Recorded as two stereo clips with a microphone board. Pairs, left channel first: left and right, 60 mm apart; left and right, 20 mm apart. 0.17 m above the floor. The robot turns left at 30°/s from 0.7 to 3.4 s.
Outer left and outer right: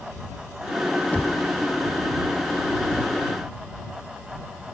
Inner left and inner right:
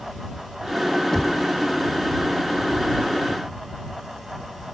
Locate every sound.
1.1 s knocking: 25° left (ahead or behind)